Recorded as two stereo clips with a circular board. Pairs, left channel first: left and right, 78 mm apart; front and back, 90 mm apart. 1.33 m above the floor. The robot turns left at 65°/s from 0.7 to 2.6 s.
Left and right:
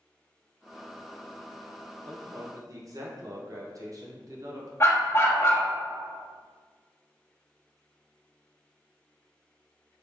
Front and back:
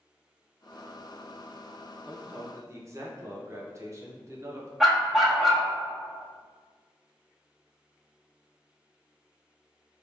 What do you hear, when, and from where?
2.1 s a man speaking: 90° right, 0.8 m; by 4.7 s 125° right, 0.8 m
4.8 s a dog barking: 90° left, 0.8 m